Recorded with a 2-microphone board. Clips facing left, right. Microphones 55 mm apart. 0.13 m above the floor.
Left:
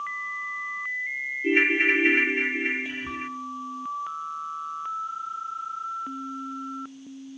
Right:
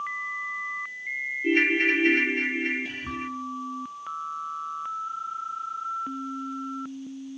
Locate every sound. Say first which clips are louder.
1.4 s a ringtone: left 1 dB; 15° left (ahead or behind), 0.6 m
2.9 s whispering: left 1 dB; 25° left (ahead or behind), 3 m